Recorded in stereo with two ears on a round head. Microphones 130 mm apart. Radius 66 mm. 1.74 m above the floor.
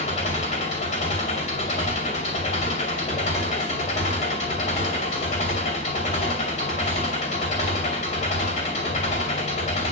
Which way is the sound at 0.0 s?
55° left (ahead or behind).